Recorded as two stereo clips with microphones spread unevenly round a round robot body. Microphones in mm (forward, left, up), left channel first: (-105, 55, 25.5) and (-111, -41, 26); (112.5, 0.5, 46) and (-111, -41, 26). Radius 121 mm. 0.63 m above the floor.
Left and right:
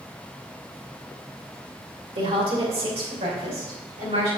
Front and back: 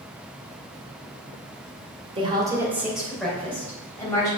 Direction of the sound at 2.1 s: 105° right.